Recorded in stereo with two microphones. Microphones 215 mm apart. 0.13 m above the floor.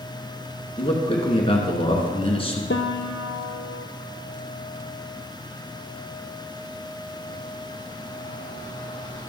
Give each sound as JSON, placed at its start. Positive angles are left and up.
{"t": 0.8, "sound": "a man speaking", "side_deg": 25, "distance_m": 1.2}
{"t": 2.7, "sound": "a piano", "side_deg": 60, "distance_m": 0.8}